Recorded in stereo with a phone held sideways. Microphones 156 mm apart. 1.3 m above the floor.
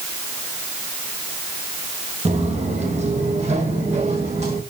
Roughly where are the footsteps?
Right.